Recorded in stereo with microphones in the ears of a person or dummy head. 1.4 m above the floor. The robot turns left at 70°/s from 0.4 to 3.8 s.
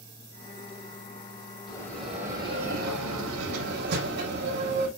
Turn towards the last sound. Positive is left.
turn(degrees=-125)